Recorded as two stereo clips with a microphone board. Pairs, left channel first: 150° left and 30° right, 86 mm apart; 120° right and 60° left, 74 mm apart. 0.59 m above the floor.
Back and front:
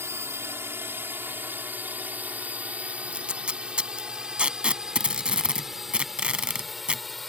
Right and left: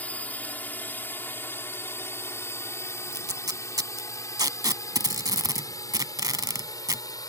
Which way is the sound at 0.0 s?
65° right.